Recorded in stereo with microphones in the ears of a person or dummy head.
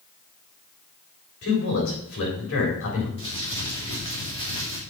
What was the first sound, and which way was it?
A man speaking, 65° left (ahead or behind).